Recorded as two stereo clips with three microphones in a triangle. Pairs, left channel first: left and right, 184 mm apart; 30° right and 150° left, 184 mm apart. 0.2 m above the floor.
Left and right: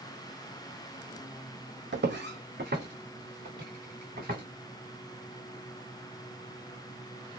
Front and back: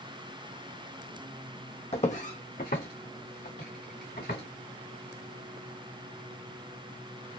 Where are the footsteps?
85° right, 0.7 m; by 4.4 s 55° right, 2 m.